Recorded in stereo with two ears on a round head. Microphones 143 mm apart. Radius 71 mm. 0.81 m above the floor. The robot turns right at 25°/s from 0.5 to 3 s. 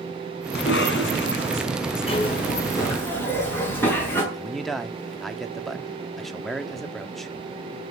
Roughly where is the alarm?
No alarm in this recording.